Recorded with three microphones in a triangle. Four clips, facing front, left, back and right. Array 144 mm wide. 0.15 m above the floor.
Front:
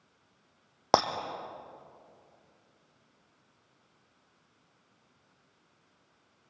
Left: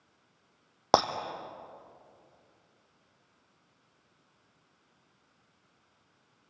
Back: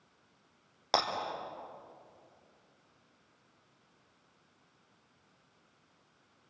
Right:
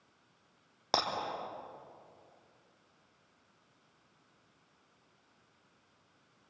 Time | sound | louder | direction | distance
0.9 | breaking glass | left 9 dB, front 6 dB | 60° left | 2 m